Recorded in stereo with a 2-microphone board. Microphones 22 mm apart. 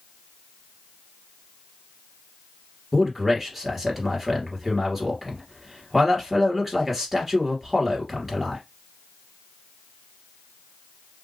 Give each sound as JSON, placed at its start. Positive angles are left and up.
{"t": 2.9, "sound": "a man speaking", "side_deg": -10, "distance_m": 2.5}